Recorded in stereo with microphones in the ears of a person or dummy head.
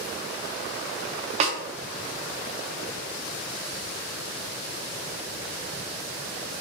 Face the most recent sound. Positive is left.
turn(degrees=-40)  # may be behind; listen again after turning